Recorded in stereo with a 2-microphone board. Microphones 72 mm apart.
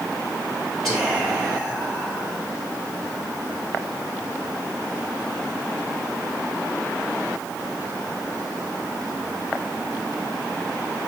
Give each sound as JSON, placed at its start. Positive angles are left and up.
{"t": 0.8, "sound": "whispering", "side_deg": 5, "distance_m": 1.7}